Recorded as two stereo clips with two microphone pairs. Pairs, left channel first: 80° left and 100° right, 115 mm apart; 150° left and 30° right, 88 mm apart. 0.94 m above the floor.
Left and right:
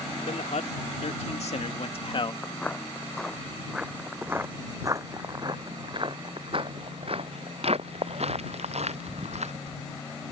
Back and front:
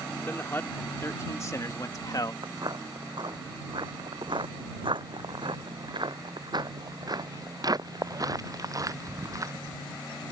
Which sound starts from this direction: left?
A man speaking, at 0.2 s.